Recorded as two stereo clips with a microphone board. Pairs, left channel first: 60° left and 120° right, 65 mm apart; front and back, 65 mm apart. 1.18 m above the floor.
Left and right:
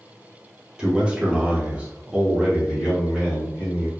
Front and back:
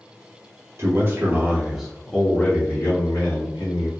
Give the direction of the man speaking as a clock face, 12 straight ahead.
6 o'clock.